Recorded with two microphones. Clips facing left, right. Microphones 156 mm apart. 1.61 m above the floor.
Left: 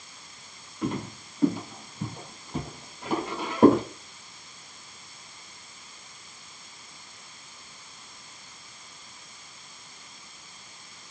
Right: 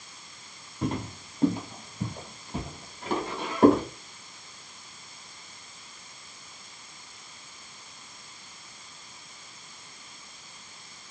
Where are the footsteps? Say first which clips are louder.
Even; 35° right (ahead or behind), 1.9 m; by 3.8 s 20° left (ahead or behind), 1.7 m.